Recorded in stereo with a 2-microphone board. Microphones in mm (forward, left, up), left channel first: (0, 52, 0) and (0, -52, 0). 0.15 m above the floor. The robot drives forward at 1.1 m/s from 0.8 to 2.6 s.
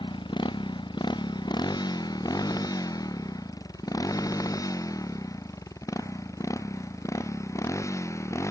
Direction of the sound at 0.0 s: 55° left (ahead or behind).